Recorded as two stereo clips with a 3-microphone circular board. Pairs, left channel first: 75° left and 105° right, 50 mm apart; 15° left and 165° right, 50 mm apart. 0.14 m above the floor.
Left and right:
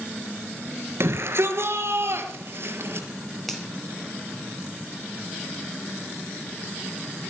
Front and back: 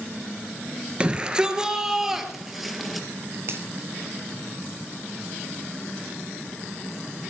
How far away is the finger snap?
About 2.5 m.